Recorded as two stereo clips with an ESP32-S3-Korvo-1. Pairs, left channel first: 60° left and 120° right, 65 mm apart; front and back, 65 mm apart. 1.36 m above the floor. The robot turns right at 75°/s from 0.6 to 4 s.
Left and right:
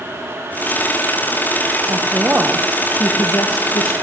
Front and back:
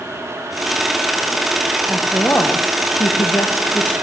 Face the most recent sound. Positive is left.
turn(degrees=70)